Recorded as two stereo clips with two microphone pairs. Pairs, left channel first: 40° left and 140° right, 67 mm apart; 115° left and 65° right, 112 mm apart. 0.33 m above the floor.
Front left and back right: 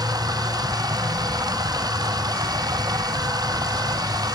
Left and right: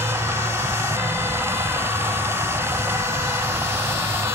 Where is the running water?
130° right.